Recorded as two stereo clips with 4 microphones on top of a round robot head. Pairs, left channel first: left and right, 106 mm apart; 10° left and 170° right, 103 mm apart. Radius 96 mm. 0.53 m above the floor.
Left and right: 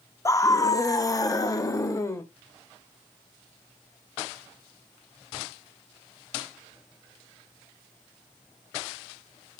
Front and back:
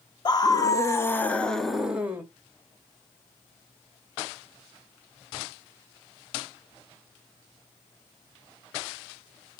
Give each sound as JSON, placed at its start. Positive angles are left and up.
{"t": 0.2, "sound": "a scream", "azimuth_deg": 40, "distance_m": 1.4}